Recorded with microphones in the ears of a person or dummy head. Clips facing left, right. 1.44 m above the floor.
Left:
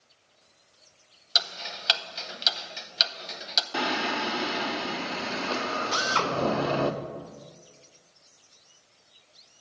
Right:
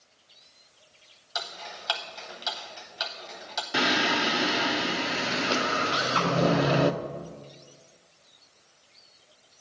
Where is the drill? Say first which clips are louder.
Right 1 dB; 50° left (ahead or behind), 1.4 m.